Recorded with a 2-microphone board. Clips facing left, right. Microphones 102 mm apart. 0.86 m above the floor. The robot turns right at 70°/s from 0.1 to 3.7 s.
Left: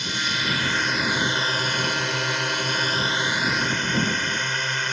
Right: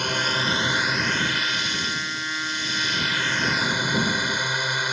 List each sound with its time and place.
0.0 s a drone: 60° right; by 4.9 s 170° right